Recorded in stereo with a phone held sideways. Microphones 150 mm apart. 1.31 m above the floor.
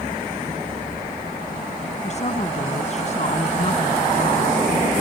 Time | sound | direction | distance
2.0 | a woman speaking | 45° left (ahead or behind) | ?